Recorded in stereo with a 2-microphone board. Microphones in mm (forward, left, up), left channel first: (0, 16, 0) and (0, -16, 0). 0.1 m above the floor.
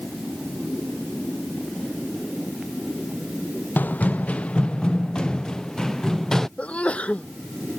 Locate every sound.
3.8 s running footsteps: 65° left (ahead or behind); by 6.5 s 20° left (ahead or behind)
6.6 s a sneeze: 45° left (ahead or behind)